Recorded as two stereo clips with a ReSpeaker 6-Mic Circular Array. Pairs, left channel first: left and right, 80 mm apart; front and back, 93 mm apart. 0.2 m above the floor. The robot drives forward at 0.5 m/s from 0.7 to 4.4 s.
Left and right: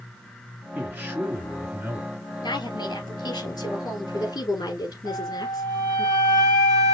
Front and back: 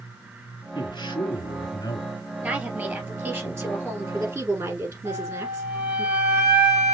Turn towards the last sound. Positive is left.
turn(degrees=-110)